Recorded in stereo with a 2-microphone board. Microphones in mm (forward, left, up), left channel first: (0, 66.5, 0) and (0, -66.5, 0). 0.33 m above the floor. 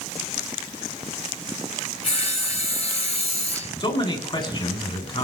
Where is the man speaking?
40° left (ahead or behind), 3.5 m.